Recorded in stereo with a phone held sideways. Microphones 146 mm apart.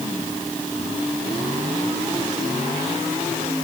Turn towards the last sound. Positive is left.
No sound to turn to.